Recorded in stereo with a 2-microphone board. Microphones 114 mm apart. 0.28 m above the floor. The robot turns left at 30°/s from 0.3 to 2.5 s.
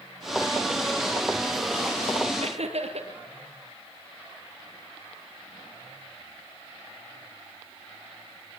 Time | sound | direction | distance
2.4 | laughter | 65° right (ahead or behind) | 5.5 m